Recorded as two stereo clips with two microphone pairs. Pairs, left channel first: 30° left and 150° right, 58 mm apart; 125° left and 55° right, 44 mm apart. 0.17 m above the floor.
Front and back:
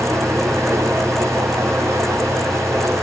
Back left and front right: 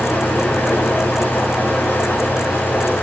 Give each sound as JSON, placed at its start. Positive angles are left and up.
{"t": 0.0, "sound": "running water", "azimuth_deg": 175, "distance_m": 4.0}